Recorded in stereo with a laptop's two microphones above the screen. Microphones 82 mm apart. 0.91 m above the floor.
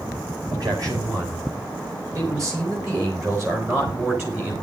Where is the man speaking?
50° right (ahead or behind), 6 m; by 4.5 s 25° right (ahead or behind), 5 m.